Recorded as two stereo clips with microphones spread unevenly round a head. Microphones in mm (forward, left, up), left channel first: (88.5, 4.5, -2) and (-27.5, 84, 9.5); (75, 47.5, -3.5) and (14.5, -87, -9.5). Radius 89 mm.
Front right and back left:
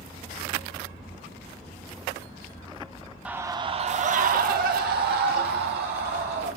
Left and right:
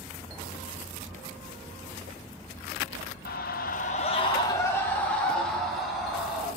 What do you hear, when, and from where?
3.2 s a scream: 65° left, 1.1 m; by 6.5 s 160° left, 4 m